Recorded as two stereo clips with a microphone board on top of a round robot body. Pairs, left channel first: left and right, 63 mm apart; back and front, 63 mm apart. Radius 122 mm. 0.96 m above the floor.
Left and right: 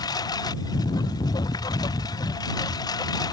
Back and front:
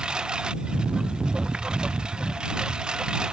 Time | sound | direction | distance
0.0 | a lawn mower | 80° left | ?